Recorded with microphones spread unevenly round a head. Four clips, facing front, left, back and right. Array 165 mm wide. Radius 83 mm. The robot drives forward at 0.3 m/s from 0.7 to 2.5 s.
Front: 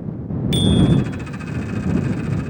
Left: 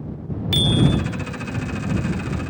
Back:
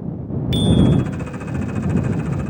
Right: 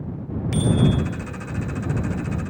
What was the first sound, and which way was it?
A bicycle bell, 120° left.